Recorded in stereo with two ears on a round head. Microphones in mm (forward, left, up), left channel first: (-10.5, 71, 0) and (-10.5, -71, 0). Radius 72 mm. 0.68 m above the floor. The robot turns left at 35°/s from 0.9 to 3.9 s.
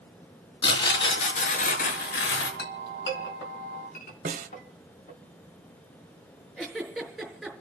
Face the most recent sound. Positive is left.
turn(degrees=0)  # may be behind; listen again after turning